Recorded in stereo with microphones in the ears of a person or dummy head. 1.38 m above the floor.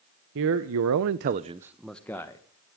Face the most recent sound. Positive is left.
turn(degrees=15)  # may be behind; listen again after turning